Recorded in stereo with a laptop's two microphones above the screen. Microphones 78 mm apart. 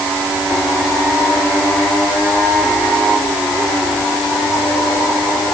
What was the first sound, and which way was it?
Only background noise.